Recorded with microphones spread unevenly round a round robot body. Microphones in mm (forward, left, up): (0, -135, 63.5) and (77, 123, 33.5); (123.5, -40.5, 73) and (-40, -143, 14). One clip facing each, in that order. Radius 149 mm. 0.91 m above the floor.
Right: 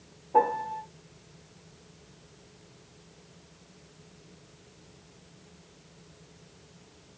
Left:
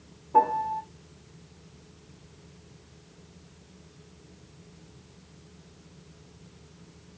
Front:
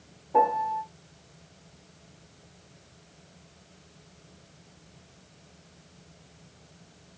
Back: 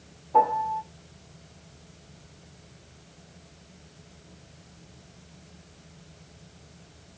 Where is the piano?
130° left, 1.0 m.